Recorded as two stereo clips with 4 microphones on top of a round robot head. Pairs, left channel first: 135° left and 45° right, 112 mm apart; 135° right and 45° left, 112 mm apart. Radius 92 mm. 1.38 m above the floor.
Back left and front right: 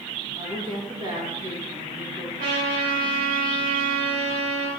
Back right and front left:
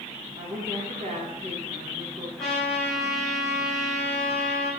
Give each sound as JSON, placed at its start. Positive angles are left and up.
{"t": 0.4, "sound": "a woman speaking", "azimuth_deg": 5, "distance_m": 2.5}
{"t": 2.4, "sound": "a trumpet", "azimuth_deg": -50, "distance_m": 4.0}